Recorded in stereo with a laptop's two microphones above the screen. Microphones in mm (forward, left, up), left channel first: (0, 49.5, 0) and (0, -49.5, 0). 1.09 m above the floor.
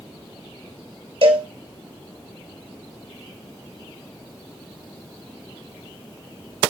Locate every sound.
1.2 s a cowbell: 85° right, 2 m